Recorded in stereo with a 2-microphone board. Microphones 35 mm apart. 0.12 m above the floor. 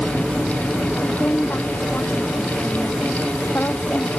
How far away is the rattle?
No rattle in this recording.